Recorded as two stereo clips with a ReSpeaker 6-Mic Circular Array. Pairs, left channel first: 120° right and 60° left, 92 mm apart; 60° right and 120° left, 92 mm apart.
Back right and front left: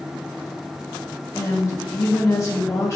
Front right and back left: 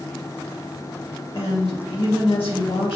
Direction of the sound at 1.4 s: 60° right.